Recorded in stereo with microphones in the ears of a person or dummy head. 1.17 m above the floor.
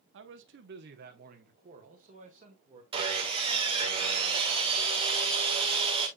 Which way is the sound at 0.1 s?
60° right (ahead or behind).